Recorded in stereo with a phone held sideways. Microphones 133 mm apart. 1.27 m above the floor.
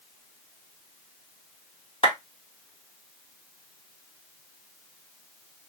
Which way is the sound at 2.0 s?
45° left (ahead or behind).